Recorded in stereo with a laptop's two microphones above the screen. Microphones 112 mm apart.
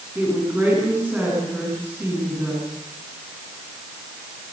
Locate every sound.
0.1 s a woman speaking: 15° right (ahead or behind), 8.5 m